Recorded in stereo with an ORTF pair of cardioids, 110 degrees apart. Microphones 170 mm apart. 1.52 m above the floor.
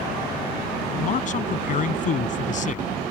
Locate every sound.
0.9 s a man speaking: 50° left